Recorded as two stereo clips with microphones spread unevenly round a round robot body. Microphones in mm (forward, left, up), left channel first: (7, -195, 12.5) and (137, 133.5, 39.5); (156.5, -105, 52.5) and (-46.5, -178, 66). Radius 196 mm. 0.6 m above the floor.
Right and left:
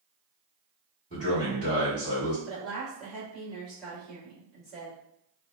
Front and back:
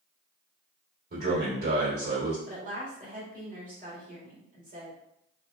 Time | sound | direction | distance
1.1 | a man speaking | 140° left | 1.7 m
2.5 | a woman speaking | 165° left | 1.3 m